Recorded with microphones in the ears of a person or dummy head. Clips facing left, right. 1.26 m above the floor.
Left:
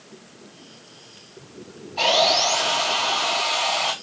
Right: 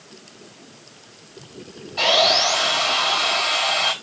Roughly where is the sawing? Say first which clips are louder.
Right 1 dB; centre.